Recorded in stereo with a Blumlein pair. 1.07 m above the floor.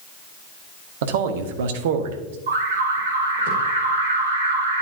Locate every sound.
1.0 s a man speaking: 55° right, 1.2 m
2.5 s an alarm: 65° right, 2.5 m